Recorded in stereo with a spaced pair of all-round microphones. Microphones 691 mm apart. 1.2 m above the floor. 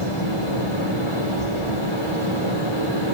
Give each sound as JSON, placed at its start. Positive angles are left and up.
{"t": 0.0, "sound": "a fan", "side_deg": 40, "distance_m": 7.0}